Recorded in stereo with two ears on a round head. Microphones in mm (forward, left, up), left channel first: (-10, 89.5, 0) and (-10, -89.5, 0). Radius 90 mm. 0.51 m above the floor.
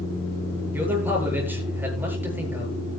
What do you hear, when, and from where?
0.7 s a man speaking: 10° right (ahead or behind), 8.5 m